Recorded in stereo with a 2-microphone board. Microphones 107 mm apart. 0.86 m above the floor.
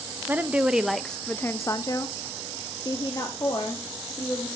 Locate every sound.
0.3 s a woman speaking: 15° right (ahead or behind), 0.8 m; by 4.5 s 35° left (ahead or behind), 2 m